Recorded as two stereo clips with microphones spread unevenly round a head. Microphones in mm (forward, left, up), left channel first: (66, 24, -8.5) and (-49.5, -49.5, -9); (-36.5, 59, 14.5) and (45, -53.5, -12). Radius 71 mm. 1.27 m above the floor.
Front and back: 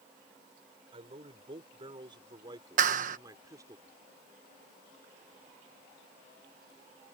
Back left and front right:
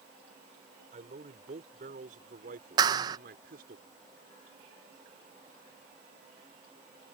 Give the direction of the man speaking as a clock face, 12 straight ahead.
3 o'clock.